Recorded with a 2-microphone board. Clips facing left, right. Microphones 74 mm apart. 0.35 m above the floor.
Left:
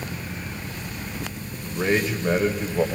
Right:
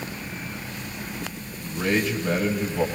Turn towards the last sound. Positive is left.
turn(degrees=25)  # may be behind; listen again after turning